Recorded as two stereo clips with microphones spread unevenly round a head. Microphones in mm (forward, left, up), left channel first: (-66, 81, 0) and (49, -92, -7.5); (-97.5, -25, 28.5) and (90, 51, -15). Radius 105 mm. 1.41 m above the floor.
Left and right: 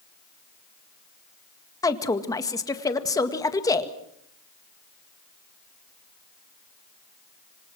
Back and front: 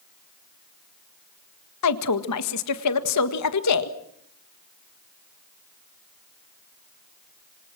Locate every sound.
1.8 s a woman speaking: 160° right, 1.8 m